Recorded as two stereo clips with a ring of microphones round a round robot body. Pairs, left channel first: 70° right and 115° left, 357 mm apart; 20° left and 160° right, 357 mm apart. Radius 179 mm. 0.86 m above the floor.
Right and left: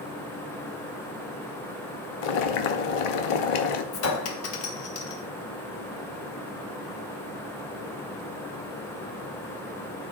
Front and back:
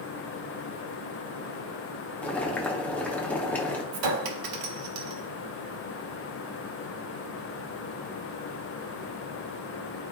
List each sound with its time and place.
2.2 s boiling: 65° right, 0.8 m
3.9 s a clink: 120° right, 0.9 m